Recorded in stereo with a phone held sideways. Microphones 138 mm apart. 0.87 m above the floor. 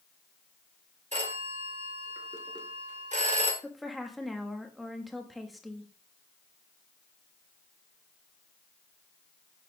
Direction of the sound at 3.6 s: Centre (ahead or behind).